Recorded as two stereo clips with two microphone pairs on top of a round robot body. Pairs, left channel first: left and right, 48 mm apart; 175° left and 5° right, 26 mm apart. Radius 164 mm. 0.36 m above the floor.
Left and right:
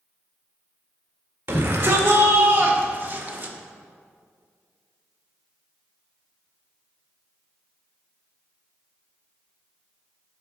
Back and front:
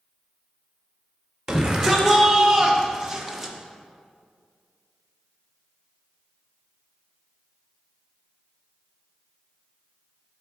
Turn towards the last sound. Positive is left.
turn(degrees=-75)